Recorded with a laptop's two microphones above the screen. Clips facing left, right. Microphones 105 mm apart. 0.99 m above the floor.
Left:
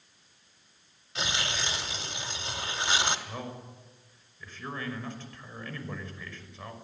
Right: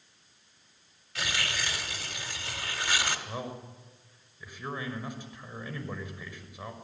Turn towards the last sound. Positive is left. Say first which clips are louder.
# right 2 dB
turn(degrees=-15)  # may be behind; listen again after turning